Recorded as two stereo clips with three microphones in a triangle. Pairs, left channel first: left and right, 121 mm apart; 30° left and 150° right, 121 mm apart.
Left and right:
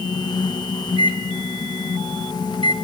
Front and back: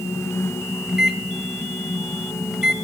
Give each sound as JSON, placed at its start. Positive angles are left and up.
{"t": 0.9, "sound": "a microwave", "azimuth_deg": 125, "distance_m": 1.2}